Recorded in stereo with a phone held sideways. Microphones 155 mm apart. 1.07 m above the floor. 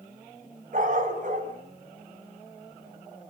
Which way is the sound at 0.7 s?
60° right (ahead or behind).